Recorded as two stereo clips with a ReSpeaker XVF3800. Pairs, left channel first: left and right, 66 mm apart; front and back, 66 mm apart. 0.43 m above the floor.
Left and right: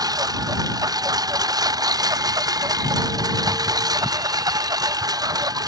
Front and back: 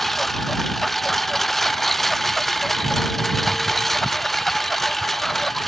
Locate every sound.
0.0 s a lawn mower: 85° right